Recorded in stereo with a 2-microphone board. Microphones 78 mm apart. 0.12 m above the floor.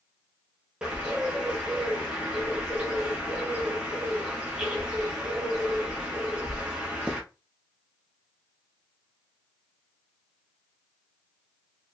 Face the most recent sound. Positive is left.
turn(degrees=-10)  # may be behind; listen again after turning